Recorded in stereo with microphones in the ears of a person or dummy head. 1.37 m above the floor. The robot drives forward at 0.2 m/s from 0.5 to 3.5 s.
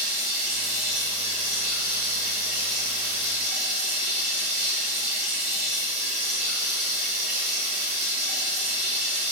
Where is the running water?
25° right (ahead or behind), 1.2 m.